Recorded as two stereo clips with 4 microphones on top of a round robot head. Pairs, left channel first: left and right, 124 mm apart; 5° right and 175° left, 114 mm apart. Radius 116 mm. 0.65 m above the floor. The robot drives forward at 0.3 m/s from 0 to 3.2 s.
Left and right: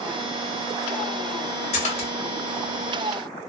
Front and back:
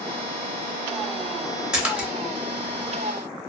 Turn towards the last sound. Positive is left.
turn(degrees=115)